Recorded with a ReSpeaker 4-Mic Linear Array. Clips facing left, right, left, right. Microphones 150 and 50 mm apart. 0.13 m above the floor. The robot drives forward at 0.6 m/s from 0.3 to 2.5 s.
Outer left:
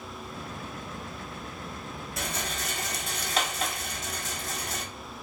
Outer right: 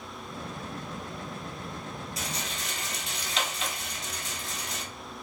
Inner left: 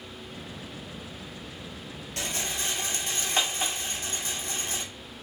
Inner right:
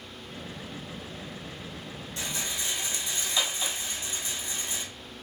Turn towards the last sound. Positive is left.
turn(degrees=50)  # may be behind; listen again after turning